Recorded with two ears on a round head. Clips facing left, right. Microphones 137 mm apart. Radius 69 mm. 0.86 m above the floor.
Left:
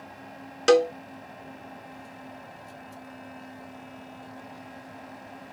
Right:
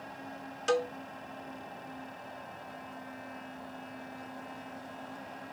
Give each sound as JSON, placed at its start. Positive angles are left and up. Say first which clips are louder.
{"t": 0.7, "sound": "a cowbell", "louder": "left 11 dB", "side_deg": 85}